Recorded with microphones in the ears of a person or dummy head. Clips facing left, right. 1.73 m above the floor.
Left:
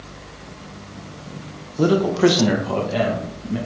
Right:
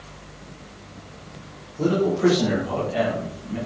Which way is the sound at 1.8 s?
70° left (ahead or behind).